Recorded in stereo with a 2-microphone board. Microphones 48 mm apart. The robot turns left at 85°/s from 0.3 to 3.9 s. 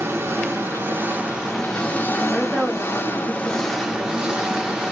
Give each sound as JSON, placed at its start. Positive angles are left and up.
{"t": 0.0, "sound": "an engine running", "azimuth_deg": -70, "distance_m": 1.0}
{"t": 2.3, "sound": "a woman speaking", "azimuth_deg": 5, "distance_m": 0.9}